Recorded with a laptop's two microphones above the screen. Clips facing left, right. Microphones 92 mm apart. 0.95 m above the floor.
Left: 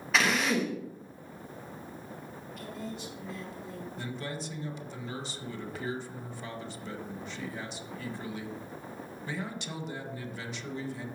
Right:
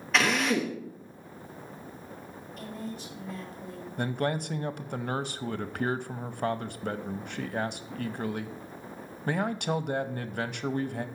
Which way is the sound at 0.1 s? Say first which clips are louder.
Right 1 dB; centre (ahead or behind).